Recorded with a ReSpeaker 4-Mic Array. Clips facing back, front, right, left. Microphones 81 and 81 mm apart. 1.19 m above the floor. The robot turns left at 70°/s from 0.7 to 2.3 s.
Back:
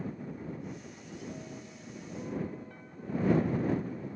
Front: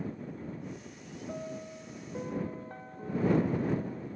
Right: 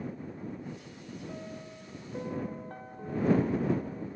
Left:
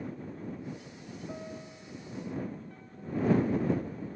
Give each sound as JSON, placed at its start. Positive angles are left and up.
{"t": 1.3, "sound": "a piano", "azimuth_deg": 20}